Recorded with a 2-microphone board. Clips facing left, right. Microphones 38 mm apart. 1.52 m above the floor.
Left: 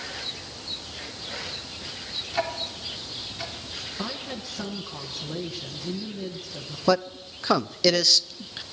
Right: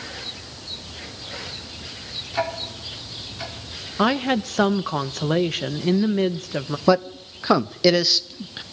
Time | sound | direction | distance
2.3 | ticking | 5° right (ahead or behind) | 4.5 m
4.0 | a woman speaking | 65° right (ahead or behind) | 1.1 m
6.9 | a man speaking | 10° right (ahead or behind) | 0.8 m